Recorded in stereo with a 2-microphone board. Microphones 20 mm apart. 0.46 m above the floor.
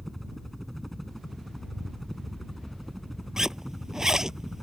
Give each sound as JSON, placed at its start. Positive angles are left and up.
{"t": 0.0, "sound": "a helicopter", "side_deg": 5}
{"t": 3.4, "sound": "a zipper", "side_deg": -25}